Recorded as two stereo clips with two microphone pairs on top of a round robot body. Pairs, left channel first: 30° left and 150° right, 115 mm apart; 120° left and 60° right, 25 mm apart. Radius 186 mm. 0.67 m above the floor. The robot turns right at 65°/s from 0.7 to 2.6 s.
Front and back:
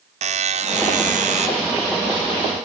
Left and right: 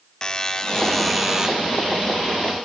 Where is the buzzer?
175° right, 0.7 m; by 1.5 s 125° right, 0.7 m.